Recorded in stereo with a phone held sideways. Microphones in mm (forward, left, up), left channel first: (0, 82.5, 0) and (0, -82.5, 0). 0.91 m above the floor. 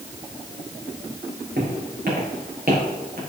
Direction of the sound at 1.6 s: 70° right (ahead or behind).